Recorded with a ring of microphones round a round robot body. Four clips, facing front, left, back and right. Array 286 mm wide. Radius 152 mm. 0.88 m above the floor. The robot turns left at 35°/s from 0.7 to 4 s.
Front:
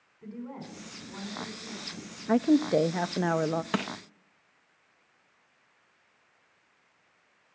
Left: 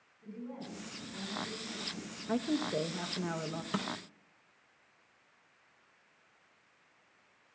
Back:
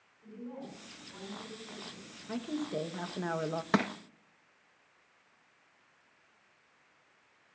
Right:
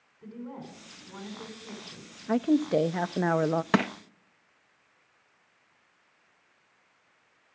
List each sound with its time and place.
0.2 s a woman speaking: 35° right, 10 m; by 2.2 s 85° right, 10 m
2.3 s a woman speaking: 20° right, 0.7 m; by 3.6 s 70° right, 0.7 m
3.7 s crushing: 100° right, 0.8 m; by 3.9 s 105° right, 0.8 m